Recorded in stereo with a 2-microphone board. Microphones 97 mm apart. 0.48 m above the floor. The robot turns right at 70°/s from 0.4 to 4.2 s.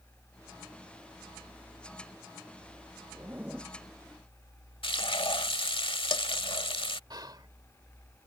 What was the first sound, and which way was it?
A zipper, 40° right.